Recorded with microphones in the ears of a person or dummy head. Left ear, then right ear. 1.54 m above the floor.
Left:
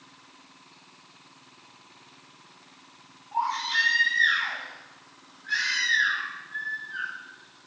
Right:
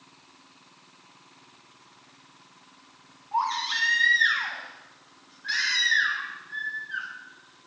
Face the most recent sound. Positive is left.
turn(degrees=-50)  # may be behind; listen again after turning